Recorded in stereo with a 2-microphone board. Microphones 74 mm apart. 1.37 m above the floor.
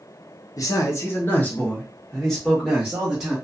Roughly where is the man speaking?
Left.